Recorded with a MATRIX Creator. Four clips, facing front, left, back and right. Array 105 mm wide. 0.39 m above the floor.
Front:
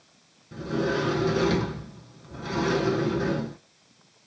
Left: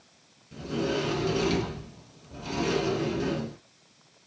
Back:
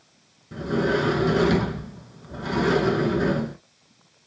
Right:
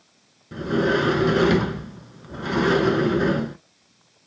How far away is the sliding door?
About 0.8 m.